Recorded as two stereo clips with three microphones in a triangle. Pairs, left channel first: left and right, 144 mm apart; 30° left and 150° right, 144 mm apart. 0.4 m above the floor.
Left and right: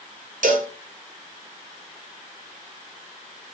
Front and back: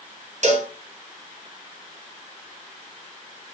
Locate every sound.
0.4 s a cowbell: 115° right, 1.1 m